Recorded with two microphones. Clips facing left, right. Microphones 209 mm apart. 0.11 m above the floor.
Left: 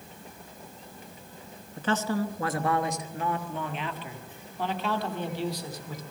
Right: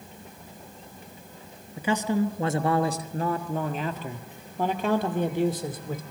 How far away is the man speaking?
About 1.1 m.